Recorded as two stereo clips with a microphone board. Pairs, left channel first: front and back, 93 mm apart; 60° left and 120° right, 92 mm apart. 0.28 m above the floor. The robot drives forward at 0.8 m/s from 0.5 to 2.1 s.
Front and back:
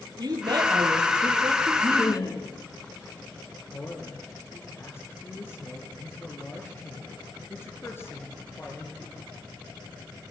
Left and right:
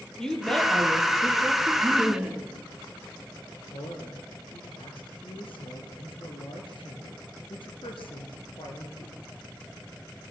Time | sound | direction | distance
0.2 | a woman speaking | 145° left | 6.5 m
1.8 | laughter | 35° right | 3.5 m
3.7 | a man speaking | 60° left | 5.5 m